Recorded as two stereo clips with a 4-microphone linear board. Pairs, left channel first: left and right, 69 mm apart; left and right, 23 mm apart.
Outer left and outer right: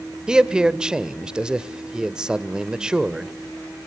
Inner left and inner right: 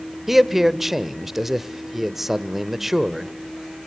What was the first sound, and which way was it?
A man speaking, 10° right (ahead or behind).